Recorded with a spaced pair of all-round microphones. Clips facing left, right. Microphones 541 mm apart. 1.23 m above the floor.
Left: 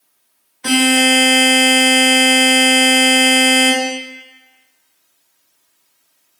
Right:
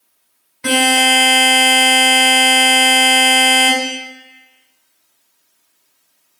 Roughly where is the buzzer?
Right.